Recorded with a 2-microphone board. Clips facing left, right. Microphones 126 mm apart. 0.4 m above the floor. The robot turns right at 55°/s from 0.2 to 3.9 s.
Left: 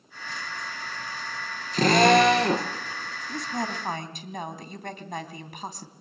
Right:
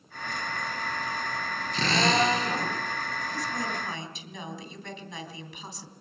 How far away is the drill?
About 3.5 m.